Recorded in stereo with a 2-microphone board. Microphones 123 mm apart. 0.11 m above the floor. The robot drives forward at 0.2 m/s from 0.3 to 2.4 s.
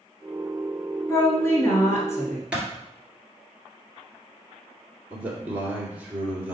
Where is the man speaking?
15° right (ahead or behind), 1.6 m.